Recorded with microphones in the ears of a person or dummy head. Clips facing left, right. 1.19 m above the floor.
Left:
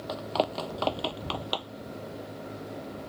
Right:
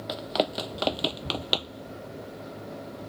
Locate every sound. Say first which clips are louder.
0.1 s running footsteps: right 1 dB; 20° right (ahead or behind); by 1.9 s 35° right (ahead or behind)